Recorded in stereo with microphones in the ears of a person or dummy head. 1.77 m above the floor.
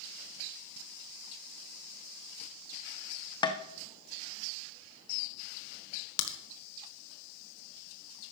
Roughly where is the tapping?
Left.